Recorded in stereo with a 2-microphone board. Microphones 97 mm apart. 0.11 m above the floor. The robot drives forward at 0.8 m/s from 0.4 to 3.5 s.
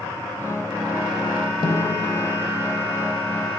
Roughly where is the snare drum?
Left.